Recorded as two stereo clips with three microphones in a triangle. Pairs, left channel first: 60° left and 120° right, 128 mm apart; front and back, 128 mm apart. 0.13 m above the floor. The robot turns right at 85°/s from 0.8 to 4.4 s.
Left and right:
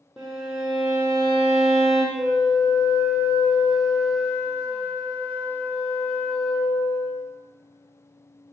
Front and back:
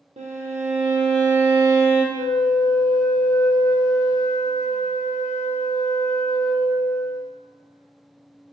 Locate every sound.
0.2 s a violin: 155° left, 0.9 m; by 2.0 s 100° right, 0.9 m
2.1 s a flute: 170° right, 0.8 m; by 7.3 s 25° left, 0.8 m